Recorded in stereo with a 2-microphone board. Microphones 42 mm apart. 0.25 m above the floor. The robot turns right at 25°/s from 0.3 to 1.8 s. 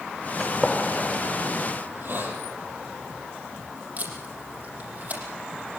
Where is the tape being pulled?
45° right (ahead or behind), 6.5 m.